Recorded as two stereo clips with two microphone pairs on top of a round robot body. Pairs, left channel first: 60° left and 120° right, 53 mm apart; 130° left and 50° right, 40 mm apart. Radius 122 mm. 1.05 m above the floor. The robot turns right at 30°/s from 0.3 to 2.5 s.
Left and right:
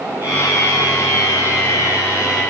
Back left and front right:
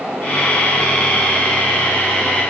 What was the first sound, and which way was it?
Only background noise.